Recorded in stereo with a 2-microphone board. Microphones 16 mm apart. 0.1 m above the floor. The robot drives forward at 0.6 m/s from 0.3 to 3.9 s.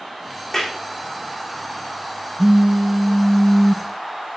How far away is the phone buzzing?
About 0.8 m.